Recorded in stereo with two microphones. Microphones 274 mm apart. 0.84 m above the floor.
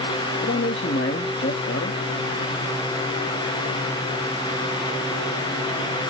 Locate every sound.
0.4 s a man speaking: 45° left (ahead or behind), 1.1 m